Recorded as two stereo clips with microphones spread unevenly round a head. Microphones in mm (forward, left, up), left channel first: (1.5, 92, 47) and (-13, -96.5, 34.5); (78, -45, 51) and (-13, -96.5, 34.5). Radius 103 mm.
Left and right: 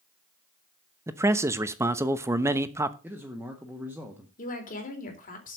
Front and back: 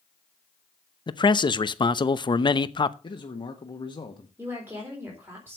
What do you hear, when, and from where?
1.1 s a man speaking: 20° right, 0.9 m
3.0 s a man speaking: 15° right, 1.5 m
4.4 s a woman speaking: 135° left, 4 m